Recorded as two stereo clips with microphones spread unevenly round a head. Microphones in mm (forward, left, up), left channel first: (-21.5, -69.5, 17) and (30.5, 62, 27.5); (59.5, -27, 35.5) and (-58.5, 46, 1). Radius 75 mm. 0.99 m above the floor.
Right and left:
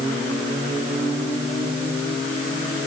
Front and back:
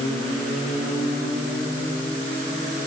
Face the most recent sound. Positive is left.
No sound to turn to.